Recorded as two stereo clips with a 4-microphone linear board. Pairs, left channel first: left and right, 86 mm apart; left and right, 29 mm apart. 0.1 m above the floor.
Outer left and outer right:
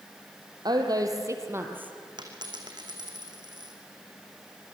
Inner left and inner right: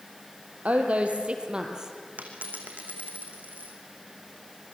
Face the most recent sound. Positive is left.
turn(degrees=-55)  # may be behind; listen again after turning